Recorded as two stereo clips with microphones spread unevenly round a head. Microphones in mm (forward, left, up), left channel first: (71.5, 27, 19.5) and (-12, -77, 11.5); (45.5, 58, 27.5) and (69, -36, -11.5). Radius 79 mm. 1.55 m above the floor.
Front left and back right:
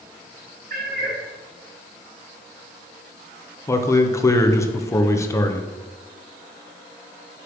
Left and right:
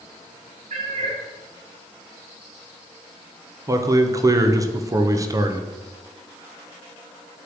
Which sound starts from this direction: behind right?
A cat meowing, at 0.7 s.